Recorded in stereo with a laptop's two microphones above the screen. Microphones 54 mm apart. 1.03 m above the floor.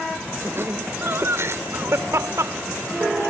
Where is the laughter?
50° right (ahead or behind); by 3.3 s 80° right.